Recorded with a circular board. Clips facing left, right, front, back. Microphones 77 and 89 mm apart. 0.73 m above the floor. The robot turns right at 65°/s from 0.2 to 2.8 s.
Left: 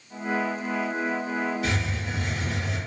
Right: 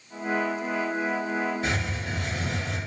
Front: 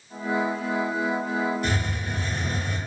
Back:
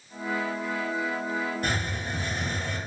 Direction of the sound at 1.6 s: 145° right.